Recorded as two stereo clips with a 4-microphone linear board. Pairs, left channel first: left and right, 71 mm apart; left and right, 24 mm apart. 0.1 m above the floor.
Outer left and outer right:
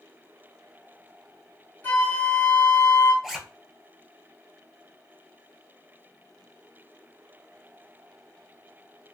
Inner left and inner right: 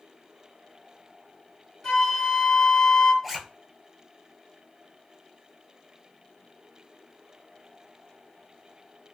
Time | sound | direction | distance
1.8 | a flute | 25° left (ahead or behind) | 2.0 m
3.2 | a zipper | 5° right (ahead or behind) | 0.6 m